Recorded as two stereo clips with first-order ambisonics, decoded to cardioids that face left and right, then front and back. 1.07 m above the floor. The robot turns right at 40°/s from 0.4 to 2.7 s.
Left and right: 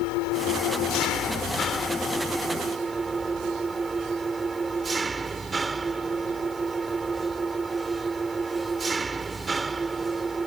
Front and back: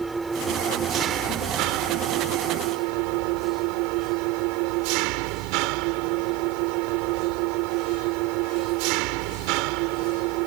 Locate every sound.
0.0 s an engine running: 100° left; by 10.5 s 170° right